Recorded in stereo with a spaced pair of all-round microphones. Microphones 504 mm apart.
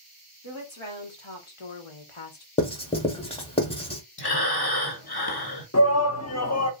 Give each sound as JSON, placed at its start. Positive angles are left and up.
{"t": 0.4, "sound": "a woman speaking", "side_deg": 60, "distance_m": 1.7}
{"t": 2.6, "sound": "writing", "side_deg": 10, "distance_m": 0.8}
{"t": 4.2, "sound": "breathing", "side_deg": 45, "distance_m": 0.9}
{"t": 5.7, "sound": "a shout", "side_deg": 30, "distance_m": 0.7}